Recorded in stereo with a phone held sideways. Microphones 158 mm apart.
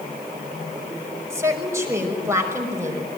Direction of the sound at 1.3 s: 15° right (ahead or behind).